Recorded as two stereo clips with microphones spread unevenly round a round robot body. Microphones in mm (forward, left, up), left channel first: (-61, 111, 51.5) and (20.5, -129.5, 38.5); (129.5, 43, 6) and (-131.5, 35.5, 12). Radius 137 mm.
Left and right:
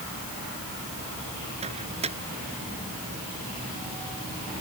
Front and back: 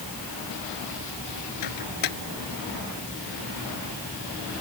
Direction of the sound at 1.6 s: Straight ahead.